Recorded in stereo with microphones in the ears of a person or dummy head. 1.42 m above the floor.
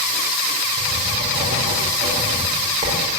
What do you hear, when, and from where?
0.8 s writing: 35° right (ahead or behind), 5 m